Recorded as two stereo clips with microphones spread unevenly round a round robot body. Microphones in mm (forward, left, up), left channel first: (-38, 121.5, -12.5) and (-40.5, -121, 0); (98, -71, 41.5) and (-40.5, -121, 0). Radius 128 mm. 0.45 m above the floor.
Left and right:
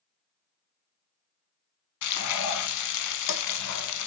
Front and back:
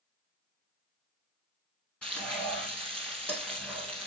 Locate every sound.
2.0 s frying: 100° left, 0.7 m